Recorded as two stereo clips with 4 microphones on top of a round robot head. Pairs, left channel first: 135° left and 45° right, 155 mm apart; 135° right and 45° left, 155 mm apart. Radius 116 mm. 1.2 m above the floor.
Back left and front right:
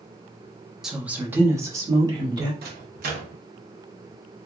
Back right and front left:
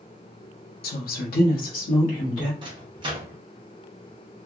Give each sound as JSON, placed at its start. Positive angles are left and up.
{"t": 0.8, "sound": "a woman speaking", "azimuth_deg": -130, "distance_m": 0.7}
{"t": 2.6, "sound": "a microwave", "azimuth_deg": -15, "distance_m": 0.8}